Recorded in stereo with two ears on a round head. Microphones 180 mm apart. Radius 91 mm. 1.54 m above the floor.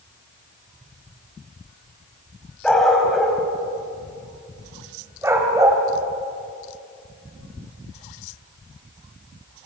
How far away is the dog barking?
About 4.5 m.